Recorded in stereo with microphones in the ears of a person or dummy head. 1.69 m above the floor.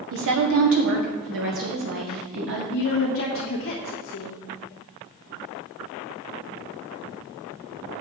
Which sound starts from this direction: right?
A woman speaking, at 0.1 s.